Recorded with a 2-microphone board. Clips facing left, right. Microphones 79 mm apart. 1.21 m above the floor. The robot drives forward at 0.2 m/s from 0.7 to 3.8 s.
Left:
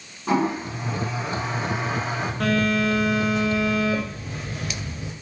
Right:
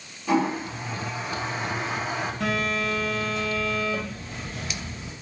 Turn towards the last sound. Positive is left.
turn(degrees=75)  # may be behind; listen again after turning